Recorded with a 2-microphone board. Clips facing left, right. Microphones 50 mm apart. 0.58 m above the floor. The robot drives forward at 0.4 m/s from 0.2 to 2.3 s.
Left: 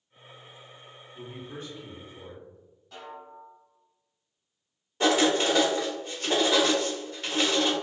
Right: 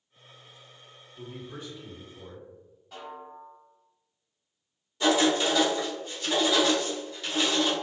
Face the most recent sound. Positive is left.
turn(degrees=45)  # may be behind; listen again after turning